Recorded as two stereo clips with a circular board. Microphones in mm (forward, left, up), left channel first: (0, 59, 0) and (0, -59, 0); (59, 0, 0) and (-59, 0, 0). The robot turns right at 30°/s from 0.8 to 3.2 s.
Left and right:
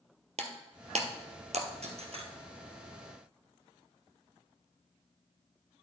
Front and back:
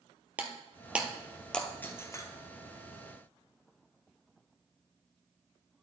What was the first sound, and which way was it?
Breaking glass, 105° right.